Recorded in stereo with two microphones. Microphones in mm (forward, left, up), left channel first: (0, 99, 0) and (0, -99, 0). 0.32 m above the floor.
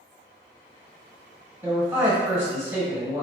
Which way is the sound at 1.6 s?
10° right (ahead or behind).